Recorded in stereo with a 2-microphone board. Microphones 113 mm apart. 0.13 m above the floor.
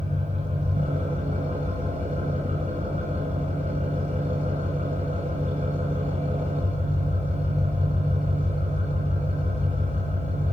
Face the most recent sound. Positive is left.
turn(degrees=-80)